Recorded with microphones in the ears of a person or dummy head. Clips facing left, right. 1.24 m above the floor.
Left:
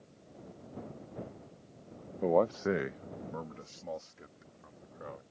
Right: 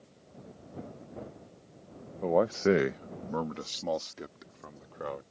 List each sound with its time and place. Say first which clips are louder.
2.2 s a man speaking: right 2 dB; 15° left (ahead or behind); by 5.2 s 85° right